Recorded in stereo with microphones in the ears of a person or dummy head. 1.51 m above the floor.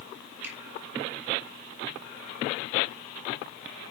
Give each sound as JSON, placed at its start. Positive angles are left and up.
{"t": 0.4, "sound": "a finger snap", "side_deg": -10, "distance_m": 3.5}